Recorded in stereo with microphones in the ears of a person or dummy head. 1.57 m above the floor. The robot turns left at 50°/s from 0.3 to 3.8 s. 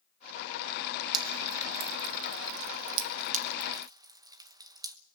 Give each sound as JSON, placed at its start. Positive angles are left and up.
{"t": 1.1, "sound": "dripping", "side_deg": -25, "distance_m": 1.0}